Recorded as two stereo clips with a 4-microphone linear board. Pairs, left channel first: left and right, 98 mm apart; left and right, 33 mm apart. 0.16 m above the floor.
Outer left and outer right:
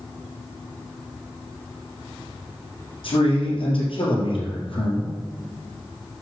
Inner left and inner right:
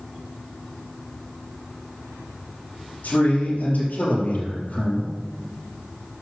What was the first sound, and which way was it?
A man speaking, 65° left (ahead or behind).